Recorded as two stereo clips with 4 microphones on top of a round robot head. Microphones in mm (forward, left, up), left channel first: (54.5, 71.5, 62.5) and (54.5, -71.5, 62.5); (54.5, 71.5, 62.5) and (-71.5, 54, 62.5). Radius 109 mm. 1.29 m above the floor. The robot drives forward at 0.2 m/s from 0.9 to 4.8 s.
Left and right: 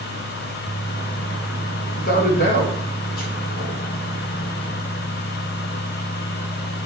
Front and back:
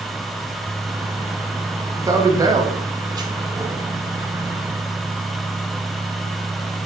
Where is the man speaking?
120° left, 1.7 m; by 3.8 s 130° left, 1.9 m.